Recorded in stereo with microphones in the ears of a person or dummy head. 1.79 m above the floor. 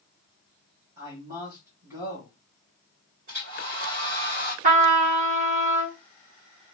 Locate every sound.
1.0 s a man speaking: 20° right (ahead or behind), 1.4 m
3.3 s a hair dryer: 45° right (ahead or behind), 2 m
4.6 s a trumpet: 40° right (ahead or behind), 0.9 m